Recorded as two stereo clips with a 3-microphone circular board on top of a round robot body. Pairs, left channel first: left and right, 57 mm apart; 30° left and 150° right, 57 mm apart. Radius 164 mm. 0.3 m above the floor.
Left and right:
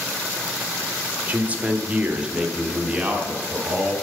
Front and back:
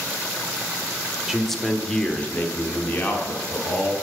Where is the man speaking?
70° right, 1.1 m; by 3.9 s 10° right, 2.5 m.